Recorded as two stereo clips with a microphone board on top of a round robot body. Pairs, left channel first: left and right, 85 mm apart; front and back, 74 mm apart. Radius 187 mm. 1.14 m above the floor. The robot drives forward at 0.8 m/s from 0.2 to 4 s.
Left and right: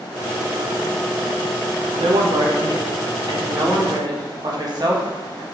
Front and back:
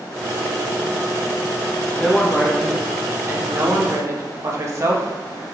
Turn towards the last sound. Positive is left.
turn(degrees=-130)